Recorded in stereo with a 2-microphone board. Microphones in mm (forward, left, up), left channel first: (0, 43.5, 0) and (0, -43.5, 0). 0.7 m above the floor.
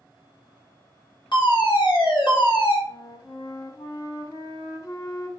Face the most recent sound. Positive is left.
turn(degrees=45)  # may be behind; listen again after turning